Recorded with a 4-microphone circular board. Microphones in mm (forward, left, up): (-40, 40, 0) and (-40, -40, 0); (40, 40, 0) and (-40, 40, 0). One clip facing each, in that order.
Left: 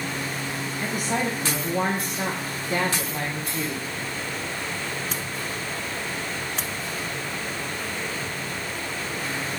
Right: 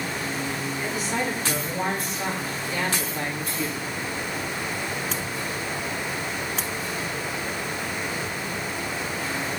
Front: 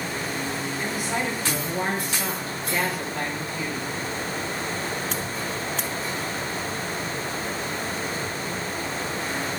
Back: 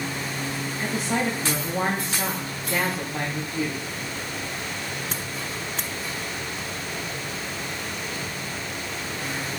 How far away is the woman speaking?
About 5.5 m.